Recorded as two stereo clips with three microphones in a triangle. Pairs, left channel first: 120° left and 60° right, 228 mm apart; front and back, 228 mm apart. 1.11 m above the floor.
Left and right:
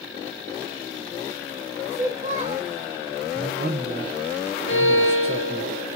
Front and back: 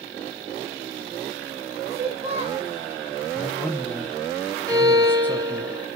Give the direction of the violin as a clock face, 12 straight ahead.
8 o'clock.